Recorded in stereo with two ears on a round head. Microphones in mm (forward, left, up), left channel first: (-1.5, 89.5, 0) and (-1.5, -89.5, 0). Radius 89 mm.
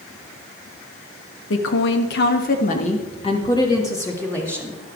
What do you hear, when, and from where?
1.5 s a woman speaking: 70° left (ahead or behind), 1.5 m; by 4.8 s 5° left (ahead or behind), 2.5 m